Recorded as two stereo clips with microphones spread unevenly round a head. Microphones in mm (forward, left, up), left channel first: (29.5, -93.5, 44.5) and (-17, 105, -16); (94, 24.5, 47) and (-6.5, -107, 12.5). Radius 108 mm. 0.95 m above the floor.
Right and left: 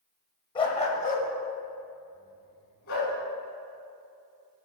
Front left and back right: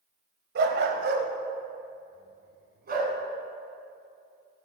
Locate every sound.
0.6 s a dog barking: 120° right, 0.9 m; by 3.1 s 90° right, 2 m